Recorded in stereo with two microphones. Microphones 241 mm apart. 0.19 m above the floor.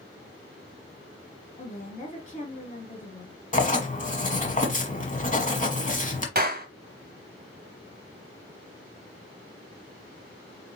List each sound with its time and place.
1.6 s a woman speaking: 30° left (ahead or behind), 1.3 m
3.5 s writing: 35° left (ahead or behind), 1.2 m
6.3 s a clap: 40° right (ahead or behind), 1.3 m